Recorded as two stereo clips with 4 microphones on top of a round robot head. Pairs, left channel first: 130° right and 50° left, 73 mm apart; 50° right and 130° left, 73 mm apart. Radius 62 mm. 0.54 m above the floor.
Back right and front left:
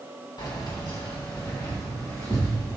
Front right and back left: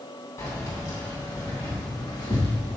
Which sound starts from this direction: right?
Keys jangling, at 0.4 s.